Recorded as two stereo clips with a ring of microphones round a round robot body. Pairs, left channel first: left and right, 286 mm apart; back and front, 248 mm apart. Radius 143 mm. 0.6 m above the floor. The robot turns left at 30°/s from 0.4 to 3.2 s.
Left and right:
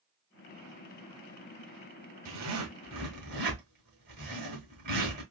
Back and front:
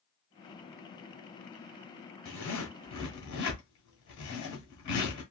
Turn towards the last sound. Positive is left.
turn(degrees=-150)